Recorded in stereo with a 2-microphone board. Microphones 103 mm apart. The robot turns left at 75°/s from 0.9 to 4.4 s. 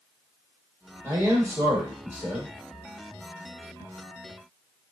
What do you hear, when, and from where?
1.0 s a man speaking: 20° right (ahead or behind), 0.9 m; by 2.5 s 5° right (ahead or behind), 0.9 m